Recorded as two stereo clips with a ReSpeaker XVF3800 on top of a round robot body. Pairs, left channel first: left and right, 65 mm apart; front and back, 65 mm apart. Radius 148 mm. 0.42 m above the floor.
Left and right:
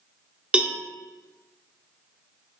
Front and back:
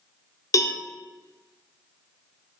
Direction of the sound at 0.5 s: 15° right.